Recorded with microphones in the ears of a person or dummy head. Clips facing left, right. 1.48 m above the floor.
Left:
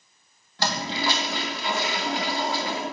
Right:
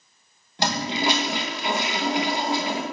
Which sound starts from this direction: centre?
A toilet flushing, at 0.6 s.